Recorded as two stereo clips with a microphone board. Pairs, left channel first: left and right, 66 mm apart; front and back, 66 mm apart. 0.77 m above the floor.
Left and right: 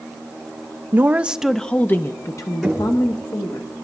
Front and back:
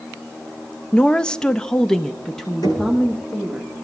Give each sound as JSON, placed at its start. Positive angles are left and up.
{"t": 0.9, "sound": "a woman speaking", "azimuth_deg": -70, "distance_m": 0.6}
{"t": 2.6, "sound": "knocking", "azimuth_deg": 5, "distance_m": 9.0}